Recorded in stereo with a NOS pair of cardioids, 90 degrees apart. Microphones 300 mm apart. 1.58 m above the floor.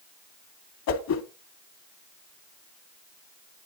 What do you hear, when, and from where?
0.9 s a whoosh: 60° left, 2 m